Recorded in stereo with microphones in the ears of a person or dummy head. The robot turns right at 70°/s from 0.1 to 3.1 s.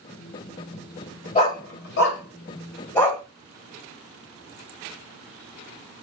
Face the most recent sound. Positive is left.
turn(degrees=0)  # may be behind; listen again after turning